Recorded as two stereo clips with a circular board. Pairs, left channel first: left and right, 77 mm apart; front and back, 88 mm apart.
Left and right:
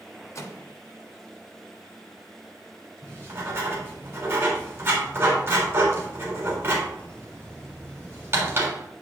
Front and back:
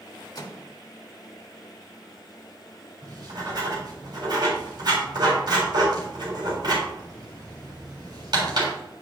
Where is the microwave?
40° left, 1.4 m.